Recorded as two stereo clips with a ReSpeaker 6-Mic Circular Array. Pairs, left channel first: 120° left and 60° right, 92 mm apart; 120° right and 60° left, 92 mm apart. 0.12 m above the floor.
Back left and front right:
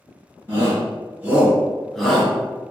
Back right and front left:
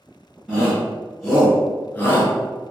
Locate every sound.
0.5 s a shout: 20° right, 1.6 m; by 2.7 s 175° right, 1.7 m